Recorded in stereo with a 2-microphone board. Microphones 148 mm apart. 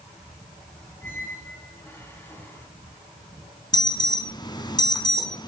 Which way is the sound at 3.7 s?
30° left (ahead or behind).